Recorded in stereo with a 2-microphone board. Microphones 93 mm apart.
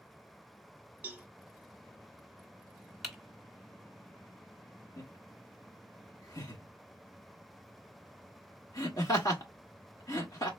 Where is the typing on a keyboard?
5° right (ahead or behind), 1.2 m.